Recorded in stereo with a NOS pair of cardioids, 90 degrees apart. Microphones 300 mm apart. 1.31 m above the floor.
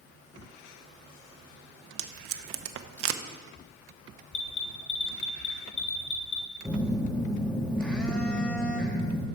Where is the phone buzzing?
5° left, 1.6 m.